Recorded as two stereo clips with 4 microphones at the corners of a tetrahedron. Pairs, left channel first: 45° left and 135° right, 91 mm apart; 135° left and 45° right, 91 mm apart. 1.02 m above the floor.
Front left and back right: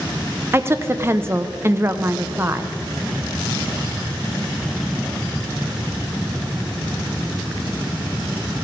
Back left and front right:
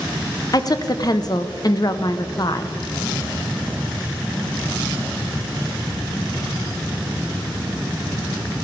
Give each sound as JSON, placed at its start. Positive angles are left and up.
{"t": 0.5, "sound": "a woman speaking", "azimuth_deg": 165, "distance_m": 0.5}